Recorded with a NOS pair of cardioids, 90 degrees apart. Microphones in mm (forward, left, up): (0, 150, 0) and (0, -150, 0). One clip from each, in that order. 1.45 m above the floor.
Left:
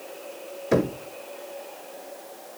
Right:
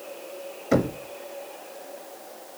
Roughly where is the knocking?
Ahead.